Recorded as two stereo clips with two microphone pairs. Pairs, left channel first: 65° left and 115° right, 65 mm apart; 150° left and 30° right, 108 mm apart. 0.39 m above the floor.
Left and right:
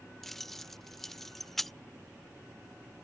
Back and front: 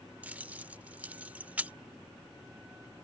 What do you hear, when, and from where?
0.2 s keys jangling: 20° right